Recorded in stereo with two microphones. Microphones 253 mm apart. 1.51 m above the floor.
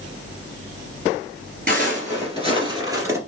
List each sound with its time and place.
1.7 s footsteps: 35° right (ahead or behind), 1.8 m; by 3.2 s 10° right (ahead or behind), 1.6 m